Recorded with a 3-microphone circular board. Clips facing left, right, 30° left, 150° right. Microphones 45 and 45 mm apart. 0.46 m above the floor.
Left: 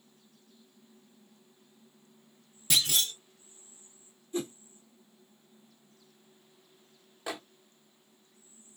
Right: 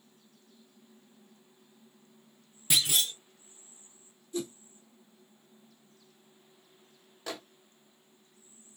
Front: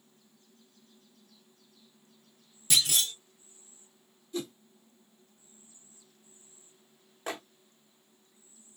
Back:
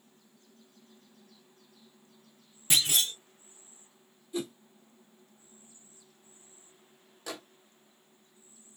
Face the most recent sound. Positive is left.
turn(degrees=30)